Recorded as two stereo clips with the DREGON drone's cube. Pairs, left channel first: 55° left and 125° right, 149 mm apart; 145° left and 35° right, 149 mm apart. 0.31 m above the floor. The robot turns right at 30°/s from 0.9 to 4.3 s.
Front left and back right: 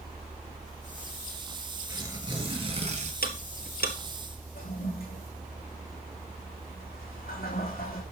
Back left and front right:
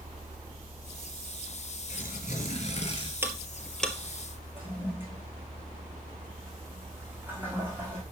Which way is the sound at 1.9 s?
165° left.